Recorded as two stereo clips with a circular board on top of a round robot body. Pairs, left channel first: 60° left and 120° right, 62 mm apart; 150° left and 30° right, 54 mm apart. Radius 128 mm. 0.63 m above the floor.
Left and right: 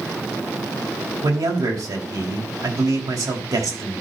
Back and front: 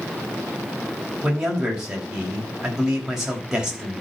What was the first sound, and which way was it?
A man speaking, 110° right.